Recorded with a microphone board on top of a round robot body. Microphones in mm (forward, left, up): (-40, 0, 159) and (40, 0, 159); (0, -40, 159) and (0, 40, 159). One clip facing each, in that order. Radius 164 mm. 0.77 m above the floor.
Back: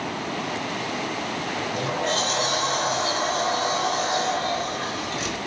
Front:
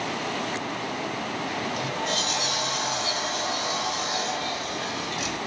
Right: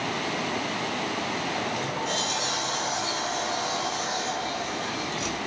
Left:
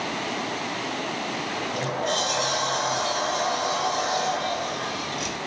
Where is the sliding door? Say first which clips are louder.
Back 2 dB, left 1 dB; 125° left, 4 m.